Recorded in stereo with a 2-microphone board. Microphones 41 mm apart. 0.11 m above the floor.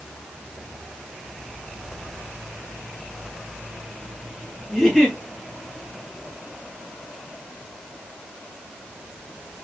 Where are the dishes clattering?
No dishes clattering in this recording.